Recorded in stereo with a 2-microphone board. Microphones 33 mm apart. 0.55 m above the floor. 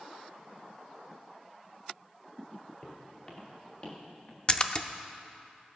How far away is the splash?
About 0.6 m.